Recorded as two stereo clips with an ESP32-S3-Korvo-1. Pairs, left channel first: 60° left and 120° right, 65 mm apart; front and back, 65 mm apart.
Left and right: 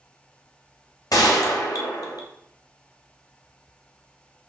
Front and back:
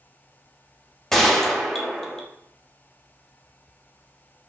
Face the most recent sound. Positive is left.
turn(degrees=85)